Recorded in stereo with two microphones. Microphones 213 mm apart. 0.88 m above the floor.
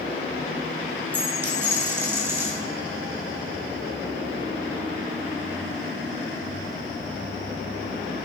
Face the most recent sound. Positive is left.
turn(degrees=-10)  # may be behind; listen again after turning